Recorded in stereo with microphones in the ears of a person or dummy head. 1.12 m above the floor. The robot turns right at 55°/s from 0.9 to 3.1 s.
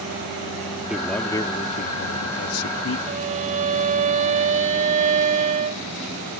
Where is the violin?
40° right (ahead or behind).